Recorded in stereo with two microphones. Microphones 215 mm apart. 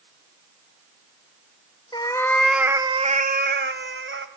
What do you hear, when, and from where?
1.9 s a cat meowing: 20° left (ahead or behind), 0.9 m; by 4.3 s 75° right (ahead or behind), 1.2 m